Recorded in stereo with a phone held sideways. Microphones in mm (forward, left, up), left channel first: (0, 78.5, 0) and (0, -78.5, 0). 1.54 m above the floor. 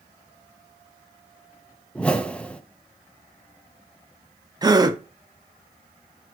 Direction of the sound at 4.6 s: 25° right (ahead or behind).